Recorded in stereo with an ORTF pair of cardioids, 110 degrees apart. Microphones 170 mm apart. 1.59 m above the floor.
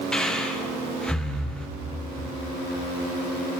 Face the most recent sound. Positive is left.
turn(degrees=5)